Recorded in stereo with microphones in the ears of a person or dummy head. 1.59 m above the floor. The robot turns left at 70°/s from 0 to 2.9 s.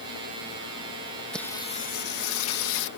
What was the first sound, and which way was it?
Singing, 175° left.